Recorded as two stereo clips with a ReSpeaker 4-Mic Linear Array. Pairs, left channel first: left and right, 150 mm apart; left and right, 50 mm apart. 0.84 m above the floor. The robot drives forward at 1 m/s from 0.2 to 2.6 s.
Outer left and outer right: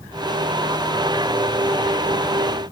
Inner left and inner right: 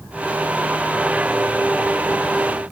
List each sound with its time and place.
Only background noise.